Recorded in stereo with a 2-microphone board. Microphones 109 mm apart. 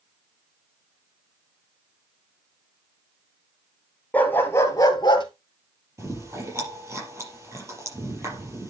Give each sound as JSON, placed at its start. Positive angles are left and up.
{"t": 4.1, "sound": "a dog barking", "side_deg": 15, "distance_m": 2.0}
{"t": 6.0, "sound": "chewing", "side_deg": -25, "distance_m": 5.0}